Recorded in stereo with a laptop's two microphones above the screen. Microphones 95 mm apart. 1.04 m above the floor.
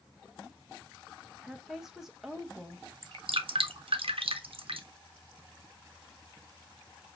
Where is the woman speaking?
Centre (ahead or behind), 1.1 m.